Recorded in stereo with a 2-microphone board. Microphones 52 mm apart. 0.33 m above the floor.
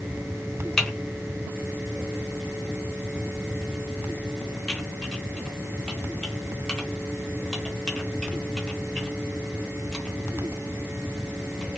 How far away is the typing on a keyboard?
About 1.0 m.